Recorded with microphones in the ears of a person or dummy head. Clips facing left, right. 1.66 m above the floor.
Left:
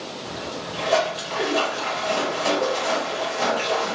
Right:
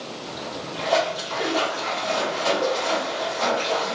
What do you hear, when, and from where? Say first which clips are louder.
0.2 s a splash: left 1 dB; 45° left (ahead or behind), 1.0 m